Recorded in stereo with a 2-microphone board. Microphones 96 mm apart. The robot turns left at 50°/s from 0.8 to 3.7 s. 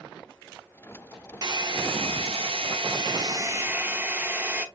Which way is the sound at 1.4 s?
45° right.